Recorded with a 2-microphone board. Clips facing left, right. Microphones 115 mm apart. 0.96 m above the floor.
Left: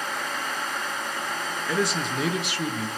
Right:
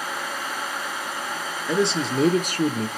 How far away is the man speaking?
About 1.0 m.